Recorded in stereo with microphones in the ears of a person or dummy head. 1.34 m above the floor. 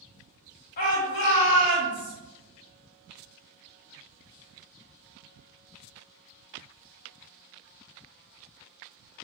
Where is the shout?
45° left (ahead or behind), 0.7 m; by 2.1 s 70° left (ahead or behind), 1.4 m.